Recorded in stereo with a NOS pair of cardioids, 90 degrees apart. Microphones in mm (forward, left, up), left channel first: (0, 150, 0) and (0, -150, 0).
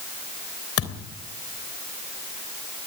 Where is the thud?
55° left, 3.5 m.